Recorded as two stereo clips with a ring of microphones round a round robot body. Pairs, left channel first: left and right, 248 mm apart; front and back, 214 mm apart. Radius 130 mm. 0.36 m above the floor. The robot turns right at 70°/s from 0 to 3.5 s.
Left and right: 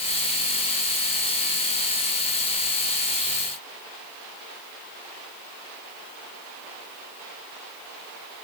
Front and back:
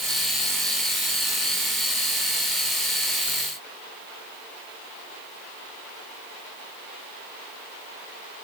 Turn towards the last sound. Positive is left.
No sound to turn to.